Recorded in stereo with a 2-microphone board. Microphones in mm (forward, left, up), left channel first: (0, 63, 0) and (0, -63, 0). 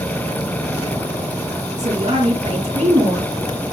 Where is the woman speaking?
50° right (ahead or behind), 2.5 m.